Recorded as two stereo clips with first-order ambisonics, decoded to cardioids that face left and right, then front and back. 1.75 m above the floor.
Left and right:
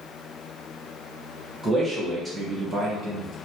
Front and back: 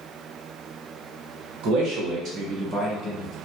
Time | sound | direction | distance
1.6 | a man speaking | 175° right | 1.0 m